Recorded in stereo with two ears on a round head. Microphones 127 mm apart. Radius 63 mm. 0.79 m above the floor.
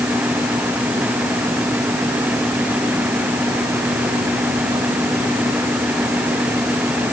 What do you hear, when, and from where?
Only background noise.